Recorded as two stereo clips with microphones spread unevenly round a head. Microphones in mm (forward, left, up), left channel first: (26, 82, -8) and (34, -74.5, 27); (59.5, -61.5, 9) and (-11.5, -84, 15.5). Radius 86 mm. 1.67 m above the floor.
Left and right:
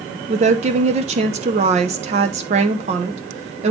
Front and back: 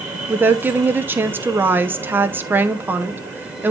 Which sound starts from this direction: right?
A woman speaking, at 0.3 s.